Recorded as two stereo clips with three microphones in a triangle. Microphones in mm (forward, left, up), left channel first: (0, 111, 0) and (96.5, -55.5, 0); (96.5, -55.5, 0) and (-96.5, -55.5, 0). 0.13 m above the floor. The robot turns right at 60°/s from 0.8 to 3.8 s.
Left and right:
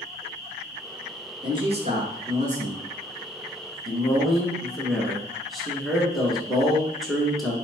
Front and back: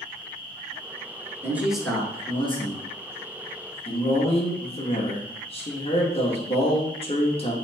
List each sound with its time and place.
1.4 s a man speaking: 110° right, 1.3 m; by 7.5 s 30° left, 1.3 m